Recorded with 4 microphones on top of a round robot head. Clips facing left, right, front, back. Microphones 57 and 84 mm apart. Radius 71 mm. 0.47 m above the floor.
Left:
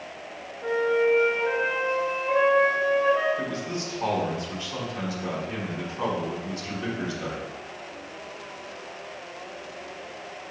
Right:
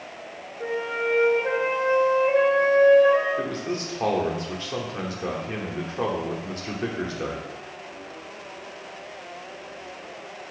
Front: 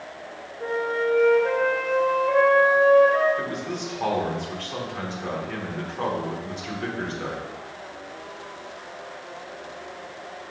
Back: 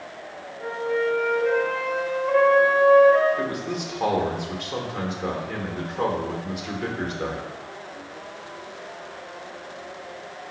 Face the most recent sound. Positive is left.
turn(degrees=-105)